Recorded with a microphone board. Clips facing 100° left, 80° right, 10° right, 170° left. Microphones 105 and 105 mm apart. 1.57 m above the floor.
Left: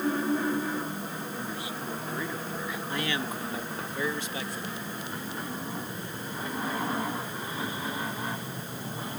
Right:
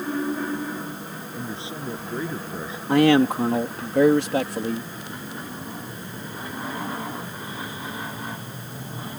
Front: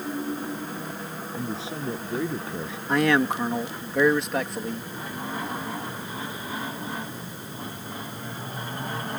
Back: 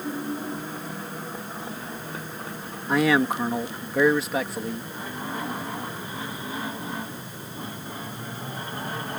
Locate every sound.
1.4 s a man speaking: 15° right
2.9 s a man speaking: 105° right